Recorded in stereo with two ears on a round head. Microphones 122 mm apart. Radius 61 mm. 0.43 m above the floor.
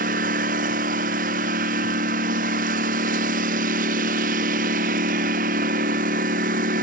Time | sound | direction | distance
0.0 | a lawn mower | 65° right (ahead or behind) | ?